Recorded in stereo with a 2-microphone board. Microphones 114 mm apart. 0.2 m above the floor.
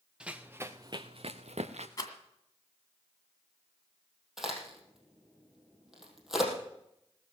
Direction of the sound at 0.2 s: 10° right (ahead or behind).